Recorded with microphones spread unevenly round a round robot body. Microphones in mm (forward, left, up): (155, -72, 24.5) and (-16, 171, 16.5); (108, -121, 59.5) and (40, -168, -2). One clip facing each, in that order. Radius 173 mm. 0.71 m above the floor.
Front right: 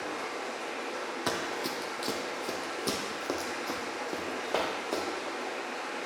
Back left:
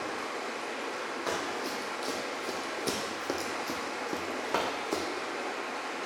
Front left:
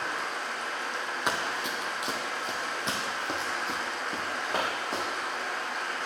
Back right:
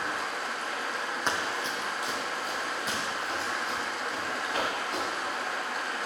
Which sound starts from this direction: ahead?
Running footsteps, at 1.3 s.